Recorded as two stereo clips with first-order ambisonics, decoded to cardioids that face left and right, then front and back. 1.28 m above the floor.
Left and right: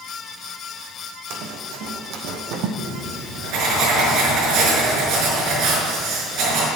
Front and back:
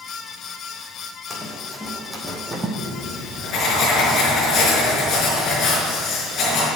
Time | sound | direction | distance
1.3 | running footsteps | 80° right | 2.5 m
2.8 | writing | 60° right | 5 m